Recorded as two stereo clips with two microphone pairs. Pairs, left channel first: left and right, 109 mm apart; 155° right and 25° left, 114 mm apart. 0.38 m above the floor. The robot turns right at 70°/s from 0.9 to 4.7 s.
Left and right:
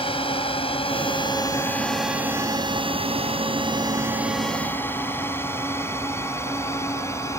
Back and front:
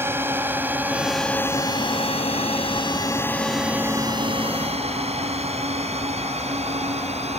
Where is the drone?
90° left; by 7.4 s 25° left.